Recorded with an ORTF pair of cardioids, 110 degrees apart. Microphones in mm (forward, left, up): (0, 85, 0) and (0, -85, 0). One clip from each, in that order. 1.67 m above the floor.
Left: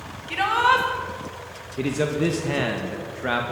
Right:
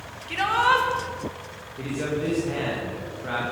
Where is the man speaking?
55° left, 2.0 m.